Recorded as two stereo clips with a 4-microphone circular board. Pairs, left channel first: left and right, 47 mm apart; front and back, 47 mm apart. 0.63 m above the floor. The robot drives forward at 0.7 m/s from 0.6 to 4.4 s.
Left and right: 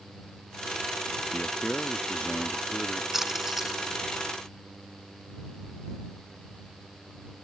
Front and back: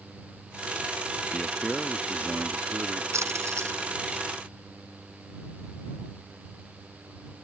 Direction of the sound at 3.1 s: 175° right.